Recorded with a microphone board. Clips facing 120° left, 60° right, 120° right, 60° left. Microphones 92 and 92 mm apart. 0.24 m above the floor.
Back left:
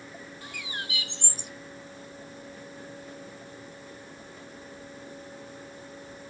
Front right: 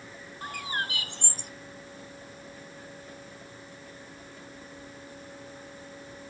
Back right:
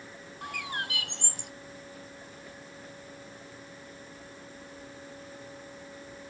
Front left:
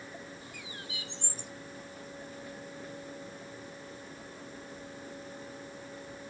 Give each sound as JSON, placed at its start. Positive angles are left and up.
{"t": 0.4, "sound": "a bird", "azimuth_deg": -105}